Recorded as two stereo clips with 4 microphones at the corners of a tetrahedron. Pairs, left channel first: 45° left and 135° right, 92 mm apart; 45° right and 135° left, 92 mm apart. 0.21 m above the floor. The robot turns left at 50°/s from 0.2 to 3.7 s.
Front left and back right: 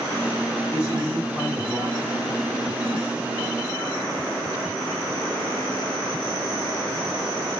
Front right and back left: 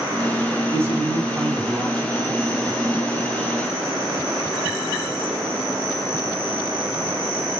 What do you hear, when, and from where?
0.7 s a man speaking: 90° left, 1.9 m; by 2.1 s 25° left, 1.9 m